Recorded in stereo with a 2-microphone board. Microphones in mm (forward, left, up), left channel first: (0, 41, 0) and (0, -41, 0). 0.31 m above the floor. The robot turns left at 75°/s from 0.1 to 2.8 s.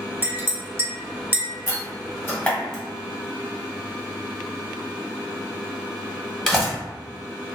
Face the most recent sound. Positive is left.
turn(degrees=5)  # may be behind; listen again after turning